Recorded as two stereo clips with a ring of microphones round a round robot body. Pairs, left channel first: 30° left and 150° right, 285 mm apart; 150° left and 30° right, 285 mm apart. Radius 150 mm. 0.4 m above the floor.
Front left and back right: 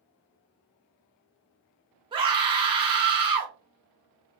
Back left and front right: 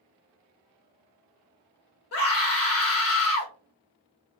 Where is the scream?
140° left, 1.4 m.